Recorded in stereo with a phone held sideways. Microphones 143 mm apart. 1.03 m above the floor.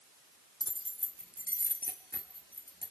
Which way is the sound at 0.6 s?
25° left (ahead or behind).